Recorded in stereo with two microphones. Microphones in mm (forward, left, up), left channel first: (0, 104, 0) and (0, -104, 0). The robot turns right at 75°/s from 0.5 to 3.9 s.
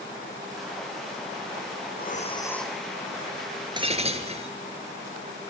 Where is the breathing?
125° left, 2 m; by 2.8 s 170° right, 2 m.